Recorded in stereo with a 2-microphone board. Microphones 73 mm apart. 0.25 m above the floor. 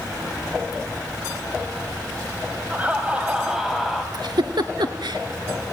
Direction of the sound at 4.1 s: 80° right.